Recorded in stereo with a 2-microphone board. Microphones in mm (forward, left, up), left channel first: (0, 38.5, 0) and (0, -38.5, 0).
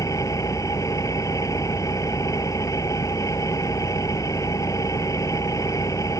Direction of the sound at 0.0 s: 45° left (ahead or behind).